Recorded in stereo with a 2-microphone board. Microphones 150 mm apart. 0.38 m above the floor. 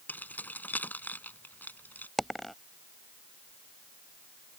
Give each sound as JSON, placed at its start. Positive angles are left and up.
{"t": 0.1, "sound": "keys jangling", "side_deg": 10}
{"t": 2.2, "sound": "a dropped coin", "side_deg": 0}